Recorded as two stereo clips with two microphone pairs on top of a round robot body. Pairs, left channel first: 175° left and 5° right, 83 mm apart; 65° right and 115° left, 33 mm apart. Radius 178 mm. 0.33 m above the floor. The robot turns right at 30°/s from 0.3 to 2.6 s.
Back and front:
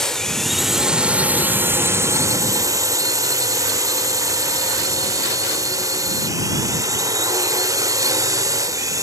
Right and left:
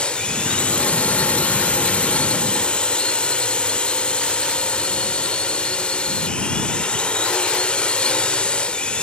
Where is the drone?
100° right; by 9.0 s 30° right.